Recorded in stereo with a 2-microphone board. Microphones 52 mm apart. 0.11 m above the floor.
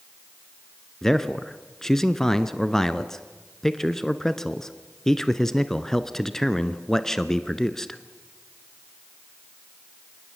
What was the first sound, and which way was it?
A man speaking, 10° left (ahead or behind).